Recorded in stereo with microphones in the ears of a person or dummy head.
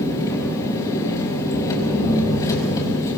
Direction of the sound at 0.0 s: 25° left (ahead or behind).